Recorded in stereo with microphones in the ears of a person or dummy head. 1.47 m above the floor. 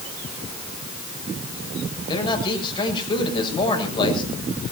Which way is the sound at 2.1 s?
25° left (ahead or behind).